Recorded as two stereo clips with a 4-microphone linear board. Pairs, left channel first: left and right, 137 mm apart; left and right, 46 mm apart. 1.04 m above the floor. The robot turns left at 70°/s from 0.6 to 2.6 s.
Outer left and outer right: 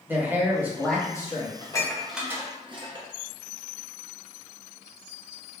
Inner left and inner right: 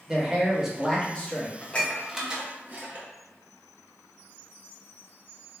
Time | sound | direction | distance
0.1 | a man speaking | 165° right | 0.8 m
1.6 | dishes clattering | 35° left (ahead or behind) | 0.5 m